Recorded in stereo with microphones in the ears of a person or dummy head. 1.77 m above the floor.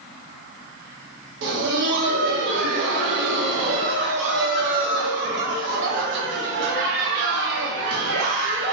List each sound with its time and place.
1.4 s laughter: 65° right (ahead or behind), 0.9 m